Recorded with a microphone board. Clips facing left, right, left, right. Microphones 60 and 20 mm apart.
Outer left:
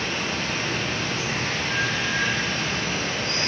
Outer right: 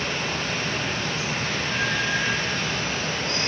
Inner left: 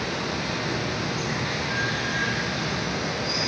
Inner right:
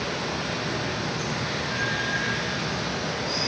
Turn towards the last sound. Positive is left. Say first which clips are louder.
# even, inner left 1 dB
turn(degrees=85)